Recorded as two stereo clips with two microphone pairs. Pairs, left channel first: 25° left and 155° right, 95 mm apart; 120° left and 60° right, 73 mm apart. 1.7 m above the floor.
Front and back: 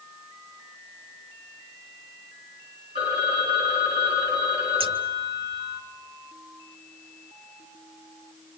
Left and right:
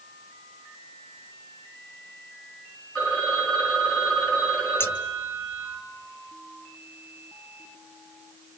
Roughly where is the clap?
I don't hear a clap.